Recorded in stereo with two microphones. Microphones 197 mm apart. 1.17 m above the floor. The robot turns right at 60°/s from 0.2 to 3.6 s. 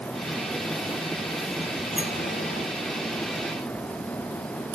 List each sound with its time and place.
1.9 s a sliding door: 40° left (ahead or behind), 0.6 m; by 2.7 s 70° left (ahead or behind), 0.6 m